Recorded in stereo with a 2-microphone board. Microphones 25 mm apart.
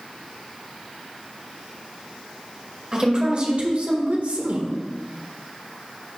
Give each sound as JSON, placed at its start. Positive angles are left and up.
{"t": 2.9, "sound": "a woman speaking", "side_deg": -30, "distance_m": 2.0}